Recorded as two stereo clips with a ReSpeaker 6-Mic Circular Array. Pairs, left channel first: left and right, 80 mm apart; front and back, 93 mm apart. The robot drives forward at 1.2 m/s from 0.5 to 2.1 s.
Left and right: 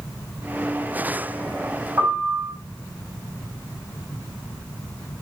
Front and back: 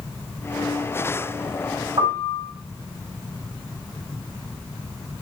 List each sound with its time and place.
2.0 s a piano: 150° right, 3.5 m; by 2.5 s 155° right, 3.5 m